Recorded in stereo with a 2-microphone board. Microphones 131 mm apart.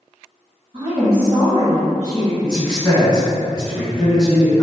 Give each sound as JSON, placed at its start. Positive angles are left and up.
{"t": 0.7, "sound": "a woman speaking", "side_deg": -45, "distance_m": 1.7}
{"t": 2.4, "sound": "a man speaking", "side_deg": -5, "distance_m": 1.9}